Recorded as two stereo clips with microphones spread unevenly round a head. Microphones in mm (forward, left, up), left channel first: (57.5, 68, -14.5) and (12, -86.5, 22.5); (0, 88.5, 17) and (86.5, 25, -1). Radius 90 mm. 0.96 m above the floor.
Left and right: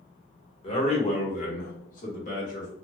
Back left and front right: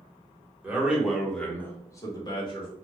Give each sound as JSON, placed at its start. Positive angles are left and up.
{"t": 0.6, "sound": "a man speaking", "azimuth_deg": 35, "distance_m": 1.6}